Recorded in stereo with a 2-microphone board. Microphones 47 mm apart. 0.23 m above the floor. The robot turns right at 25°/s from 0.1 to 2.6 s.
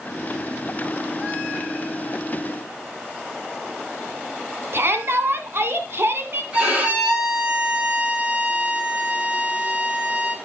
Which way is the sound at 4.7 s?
55° right (ahead or behind).